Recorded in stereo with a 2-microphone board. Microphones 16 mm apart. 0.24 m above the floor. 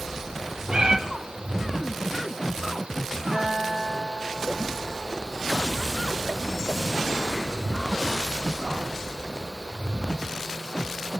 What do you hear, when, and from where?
0.7 s a cat meowing: 65° right (ahead or behind), 1.2 m
3.3 s a guitar: 25° right (ahead or behind), 8.5 m